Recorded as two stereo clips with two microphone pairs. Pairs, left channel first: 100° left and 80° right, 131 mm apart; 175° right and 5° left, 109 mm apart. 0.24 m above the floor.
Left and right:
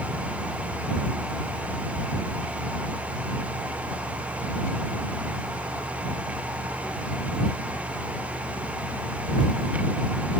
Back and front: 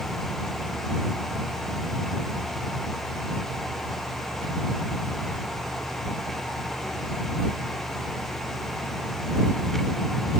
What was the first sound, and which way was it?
Only background noise.